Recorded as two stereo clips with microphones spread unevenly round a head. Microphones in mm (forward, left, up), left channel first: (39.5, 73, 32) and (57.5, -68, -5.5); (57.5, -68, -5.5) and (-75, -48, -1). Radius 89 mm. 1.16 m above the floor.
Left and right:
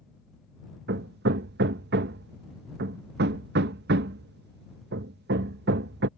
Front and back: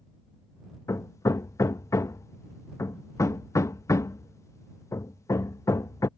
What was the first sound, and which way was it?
Hammering, 75° right.